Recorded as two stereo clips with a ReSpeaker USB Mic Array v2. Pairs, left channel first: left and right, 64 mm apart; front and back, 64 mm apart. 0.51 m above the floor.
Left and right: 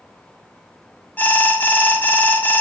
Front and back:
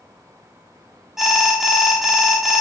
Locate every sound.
1.2 s an alarm: 100° left, 0.7 m